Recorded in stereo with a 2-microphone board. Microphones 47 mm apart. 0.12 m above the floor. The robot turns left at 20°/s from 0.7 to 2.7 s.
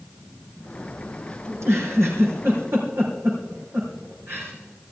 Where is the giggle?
80° right, 4 m; by 4.5 s 65° right (ahead or behind), 4 m.